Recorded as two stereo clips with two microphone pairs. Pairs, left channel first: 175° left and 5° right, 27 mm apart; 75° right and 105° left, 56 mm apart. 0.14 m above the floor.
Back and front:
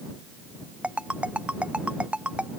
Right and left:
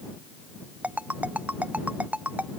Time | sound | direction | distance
0.8 | a ringtone | 40° left | ?